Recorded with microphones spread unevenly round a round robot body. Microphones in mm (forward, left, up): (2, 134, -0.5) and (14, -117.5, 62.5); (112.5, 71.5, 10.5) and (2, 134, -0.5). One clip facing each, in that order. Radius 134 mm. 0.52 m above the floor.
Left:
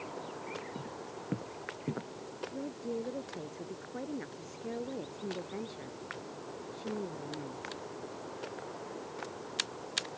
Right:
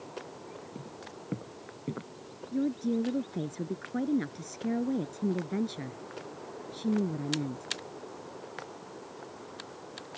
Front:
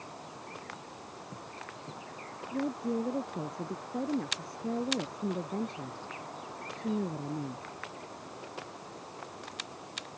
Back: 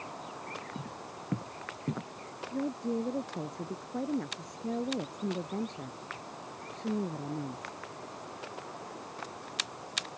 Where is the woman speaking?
115° right.